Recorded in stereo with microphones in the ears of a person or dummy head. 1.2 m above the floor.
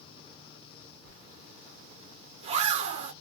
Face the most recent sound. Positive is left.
turn(degrees=-40)  # may be behind; listen again after turning